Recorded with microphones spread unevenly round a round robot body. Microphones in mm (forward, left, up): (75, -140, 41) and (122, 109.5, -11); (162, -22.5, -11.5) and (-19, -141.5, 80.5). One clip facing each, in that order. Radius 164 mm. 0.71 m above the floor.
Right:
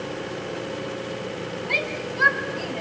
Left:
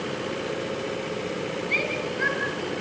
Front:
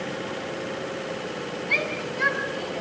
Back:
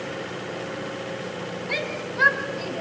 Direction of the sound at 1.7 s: 120° right.